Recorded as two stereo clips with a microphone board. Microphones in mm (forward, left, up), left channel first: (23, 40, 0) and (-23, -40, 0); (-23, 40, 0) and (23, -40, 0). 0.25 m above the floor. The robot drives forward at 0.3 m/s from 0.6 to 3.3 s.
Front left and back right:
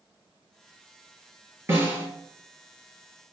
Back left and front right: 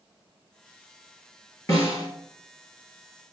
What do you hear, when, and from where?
1.7 s a snare drum: 175° left, 2.5 m